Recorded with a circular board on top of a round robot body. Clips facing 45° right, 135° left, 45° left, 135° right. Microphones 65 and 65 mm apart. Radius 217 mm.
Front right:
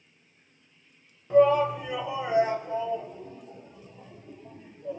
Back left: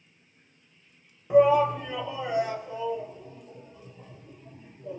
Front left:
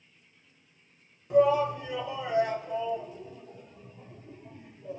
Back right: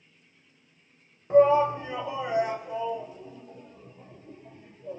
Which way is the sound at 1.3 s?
160° right.